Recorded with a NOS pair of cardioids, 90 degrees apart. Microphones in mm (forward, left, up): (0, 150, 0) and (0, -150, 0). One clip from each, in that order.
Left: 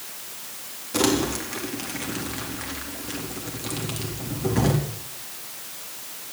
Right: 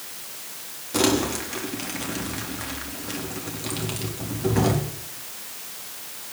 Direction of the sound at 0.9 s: 5° right.